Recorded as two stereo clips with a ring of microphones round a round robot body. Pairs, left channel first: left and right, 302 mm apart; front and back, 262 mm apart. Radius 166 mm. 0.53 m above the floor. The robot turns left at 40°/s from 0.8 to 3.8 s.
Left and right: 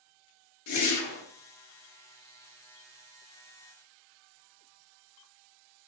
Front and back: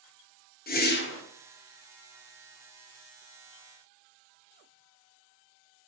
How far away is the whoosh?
About 0.8 m.